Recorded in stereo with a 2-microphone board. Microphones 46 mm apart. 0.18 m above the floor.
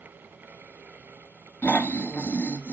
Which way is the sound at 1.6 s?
35° left (ahead or behind).